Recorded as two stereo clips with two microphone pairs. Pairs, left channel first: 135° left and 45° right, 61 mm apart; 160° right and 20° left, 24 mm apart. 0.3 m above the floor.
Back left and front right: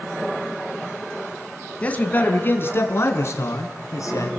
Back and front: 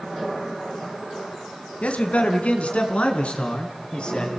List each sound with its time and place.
1.8 s a man speaking: 160° right, 3 m; by 4.3 s 160° left, 4.5 m